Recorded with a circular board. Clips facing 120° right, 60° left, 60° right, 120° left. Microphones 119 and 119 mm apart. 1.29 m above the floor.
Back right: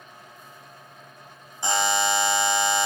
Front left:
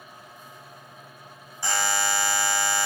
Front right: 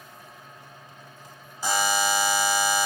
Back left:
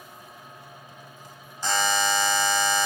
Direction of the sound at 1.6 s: 120° right.